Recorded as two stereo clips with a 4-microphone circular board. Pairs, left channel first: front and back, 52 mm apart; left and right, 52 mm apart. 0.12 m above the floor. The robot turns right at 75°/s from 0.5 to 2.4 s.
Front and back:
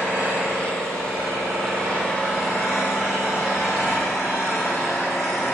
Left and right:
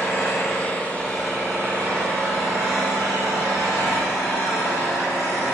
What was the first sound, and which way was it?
An engine running, 125° left.